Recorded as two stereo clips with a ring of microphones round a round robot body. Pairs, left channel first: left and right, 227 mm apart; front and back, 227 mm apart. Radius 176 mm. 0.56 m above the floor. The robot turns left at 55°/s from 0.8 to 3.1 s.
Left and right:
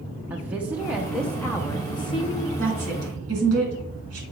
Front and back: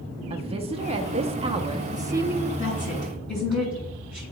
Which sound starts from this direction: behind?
A woman speaking, at 0.3 s.